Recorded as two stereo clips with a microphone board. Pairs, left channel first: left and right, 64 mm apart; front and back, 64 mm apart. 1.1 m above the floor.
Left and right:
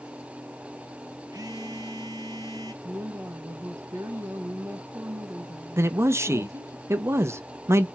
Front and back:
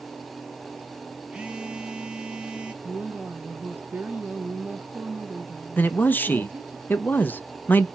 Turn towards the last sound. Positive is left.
turn(degrees=-55)